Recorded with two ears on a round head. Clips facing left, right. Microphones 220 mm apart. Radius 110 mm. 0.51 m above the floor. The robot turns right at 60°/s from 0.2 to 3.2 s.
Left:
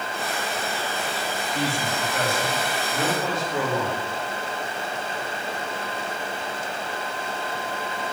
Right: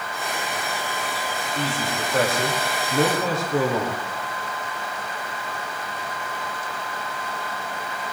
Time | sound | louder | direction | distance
1.6 | a man speaking | even | 170° left | 8.5 m